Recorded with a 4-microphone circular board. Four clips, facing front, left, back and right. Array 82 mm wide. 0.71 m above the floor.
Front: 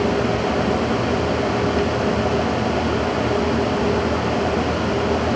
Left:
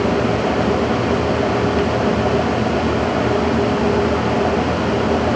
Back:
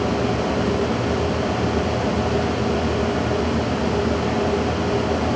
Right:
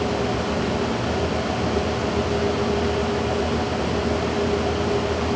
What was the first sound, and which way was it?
Only background noise.